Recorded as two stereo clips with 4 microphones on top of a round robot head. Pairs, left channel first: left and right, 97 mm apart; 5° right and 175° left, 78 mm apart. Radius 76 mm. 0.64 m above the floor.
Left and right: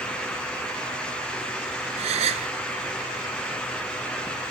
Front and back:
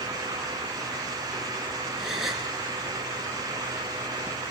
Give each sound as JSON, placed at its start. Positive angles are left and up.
{"t": 2.0, "sound": "a gasp", "azimuth_deg": -95, "distance_m": 2.0}